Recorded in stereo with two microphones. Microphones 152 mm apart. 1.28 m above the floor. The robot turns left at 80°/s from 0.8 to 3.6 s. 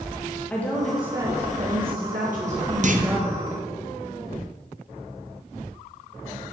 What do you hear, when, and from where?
0.5 s a woman speaking: 10° left, 1.7 m; by 3.8 s 145° left, 1.7 m
2.8 s a clunk: 50° right (ahead or behind), 1.1 m; by 3.1 s 70° right (ahead or behind), 1.1 m